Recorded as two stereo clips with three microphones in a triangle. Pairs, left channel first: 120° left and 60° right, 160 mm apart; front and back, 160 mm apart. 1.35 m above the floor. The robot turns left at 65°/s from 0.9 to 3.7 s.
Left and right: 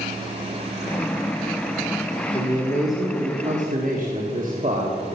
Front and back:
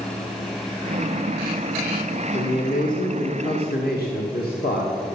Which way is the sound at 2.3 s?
65° left.